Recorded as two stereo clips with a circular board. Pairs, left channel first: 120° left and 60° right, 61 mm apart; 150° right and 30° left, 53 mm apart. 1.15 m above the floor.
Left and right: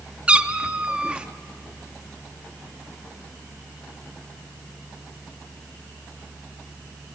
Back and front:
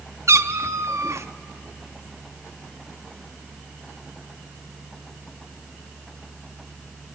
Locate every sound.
0.3 s a cat meowing: 15° left, 1.0 m